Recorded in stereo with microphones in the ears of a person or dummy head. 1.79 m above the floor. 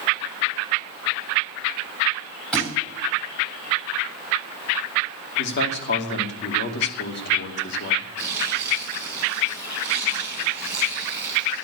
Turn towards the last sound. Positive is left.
turn(degrees=-5)  # may be behind; listen again after turning